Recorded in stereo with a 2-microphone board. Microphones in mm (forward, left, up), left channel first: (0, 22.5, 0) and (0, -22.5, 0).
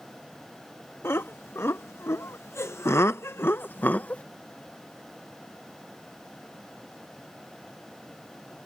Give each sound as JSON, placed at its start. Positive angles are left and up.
{"t": 1.0, "sound": "laughter", "side_deg": 70}